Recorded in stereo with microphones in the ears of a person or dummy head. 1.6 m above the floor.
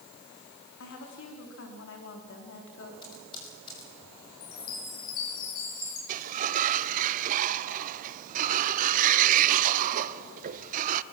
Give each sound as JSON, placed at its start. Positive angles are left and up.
{"t": 0.8, "sound": "a woman speaking", "side_deg": 70, "distance_m": 4.0}
{"t": 3.0, "sound": "typing on a keyboard", "side_deg": 25, "distance_m": 5.5}
{"t": 4.4, "sound": "a chime", "side_deg": 45, "distance_m": 4.5}
{"t": 6.1, "sound": "a sliding door", "side_deg": -45, "distance_m": 0.6}